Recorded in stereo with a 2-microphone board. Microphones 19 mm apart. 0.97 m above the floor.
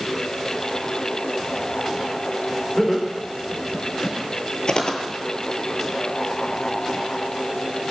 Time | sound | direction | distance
2.8 | laughter | 30° left (ahead or behind) | 3.5 m
4.7 | footsteps | 45° left (ahead or behind) | 1.3 m